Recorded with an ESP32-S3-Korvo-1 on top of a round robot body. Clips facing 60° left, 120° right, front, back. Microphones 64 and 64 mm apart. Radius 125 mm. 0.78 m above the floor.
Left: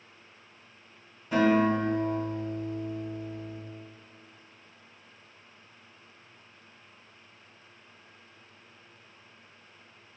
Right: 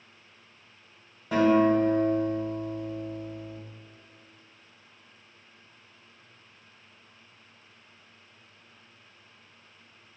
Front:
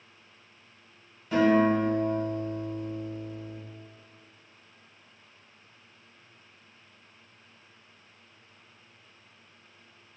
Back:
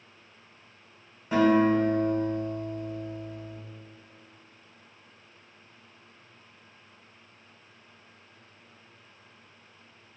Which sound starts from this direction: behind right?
A guitar, at 1.3 s.